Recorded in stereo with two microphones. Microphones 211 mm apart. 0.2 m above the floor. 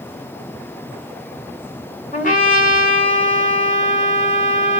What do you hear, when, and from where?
2.1 s a trumpet: 40° left (ahead or behind), 1.4 m